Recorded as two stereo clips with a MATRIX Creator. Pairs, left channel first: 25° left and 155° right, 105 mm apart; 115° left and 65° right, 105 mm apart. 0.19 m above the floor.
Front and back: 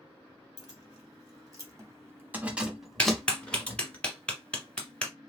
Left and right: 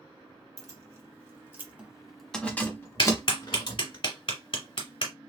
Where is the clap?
100° left, 1.6 m.